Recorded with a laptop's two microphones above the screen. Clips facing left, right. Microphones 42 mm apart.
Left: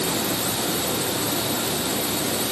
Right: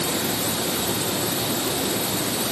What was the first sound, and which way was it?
Only background noise.